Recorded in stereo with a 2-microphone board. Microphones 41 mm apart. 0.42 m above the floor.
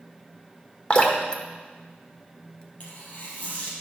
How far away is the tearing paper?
About 3 m.